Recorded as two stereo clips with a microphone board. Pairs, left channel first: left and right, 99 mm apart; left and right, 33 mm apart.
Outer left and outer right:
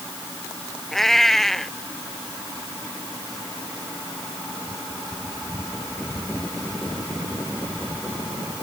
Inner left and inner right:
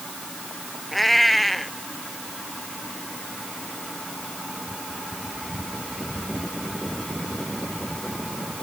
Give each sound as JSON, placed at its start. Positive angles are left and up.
{"t": 0.9, "sound": "a cat meowing", "side_deg": 5}